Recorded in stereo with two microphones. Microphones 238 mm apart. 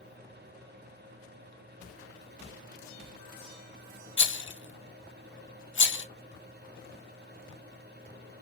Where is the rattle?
55° left (ahead or behind), 0.7 m.